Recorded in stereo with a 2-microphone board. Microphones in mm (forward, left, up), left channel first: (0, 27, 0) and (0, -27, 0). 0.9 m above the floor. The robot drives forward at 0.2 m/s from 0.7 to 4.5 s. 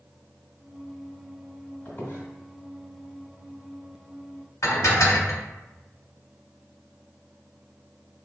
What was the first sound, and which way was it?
A squeak, 35° left (ahead or behind).